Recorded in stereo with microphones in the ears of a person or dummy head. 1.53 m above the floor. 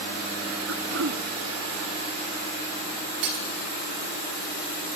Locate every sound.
0.7 s throat clearing: 75° right (ahead or behind), 0.6 m
3.2 s breaking glass: 55° right (ahead or behind), 1.9 m